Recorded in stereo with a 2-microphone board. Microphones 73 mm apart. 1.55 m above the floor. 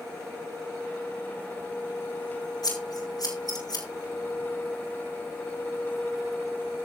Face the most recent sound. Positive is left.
turn(degrees=65)  # may be behind; listen again after turning